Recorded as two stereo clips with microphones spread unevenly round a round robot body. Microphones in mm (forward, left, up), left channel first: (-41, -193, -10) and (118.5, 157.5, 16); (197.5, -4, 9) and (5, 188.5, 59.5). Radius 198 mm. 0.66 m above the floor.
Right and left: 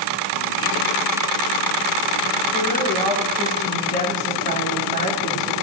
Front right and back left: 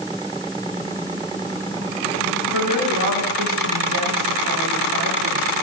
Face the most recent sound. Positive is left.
turn(degrees=175)